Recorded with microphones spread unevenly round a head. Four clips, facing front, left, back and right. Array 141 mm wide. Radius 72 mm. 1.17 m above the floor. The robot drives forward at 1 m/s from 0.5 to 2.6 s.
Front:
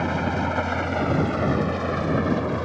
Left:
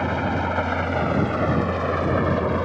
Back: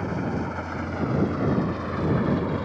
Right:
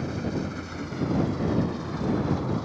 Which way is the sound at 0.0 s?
40° left.